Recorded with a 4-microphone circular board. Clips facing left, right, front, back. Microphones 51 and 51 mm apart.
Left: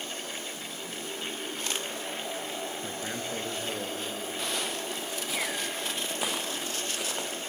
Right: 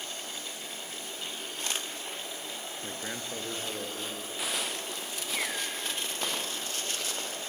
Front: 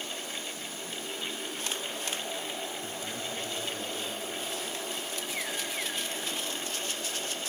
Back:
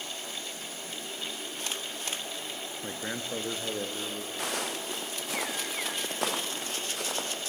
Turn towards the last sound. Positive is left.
turn(degrees=165)